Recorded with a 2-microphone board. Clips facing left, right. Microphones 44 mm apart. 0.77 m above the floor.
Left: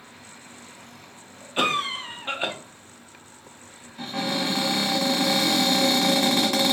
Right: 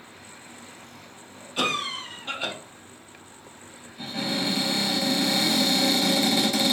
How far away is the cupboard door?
About 1.3 m.